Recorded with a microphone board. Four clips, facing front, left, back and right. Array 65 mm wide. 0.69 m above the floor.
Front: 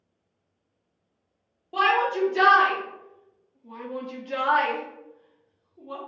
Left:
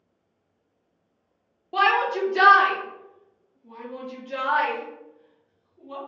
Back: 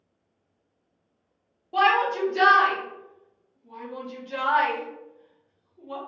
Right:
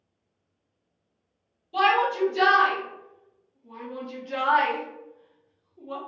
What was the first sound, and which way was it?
A shout, 85° left.